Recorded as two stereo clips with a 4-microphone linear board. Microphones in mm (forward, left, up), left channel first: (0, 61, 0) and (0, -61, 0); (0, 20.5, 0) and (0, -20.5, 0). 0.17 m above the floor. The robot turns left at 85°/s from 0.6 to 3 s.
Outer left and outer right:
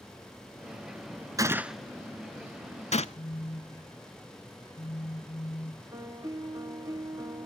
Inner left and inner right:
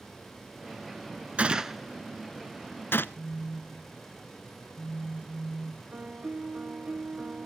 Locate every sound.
1.4 s a gunshot: 30° right (ahead or behind), 0.5 m; by 3.0 s 60° left (ahead or behind), 0.5 m
3.1 s a phone buzzing: 50° left (ahead or behind), 1.4 m
5.9 s a piano: 30° right (ahead or behind), 1.3 m